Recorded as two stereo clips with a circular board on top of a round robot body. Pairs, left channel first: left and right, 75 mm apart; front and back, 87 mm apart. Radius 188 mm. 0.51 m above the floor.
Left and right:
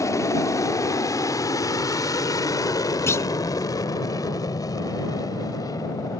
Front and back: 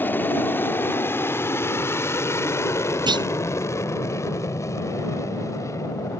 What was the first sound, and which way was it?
An aircraft, 60° left.